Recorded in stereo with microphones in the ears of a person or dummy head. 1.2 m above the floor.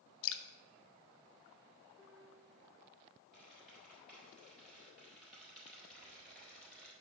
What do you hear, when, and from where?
0.2 s dripping: 75° left (ahead or behind), 0.6 m
2.0 s a piano: centre (ahead or behind), 2.5 m
3.3 s a squeak: centre (ahead or behind), 4 m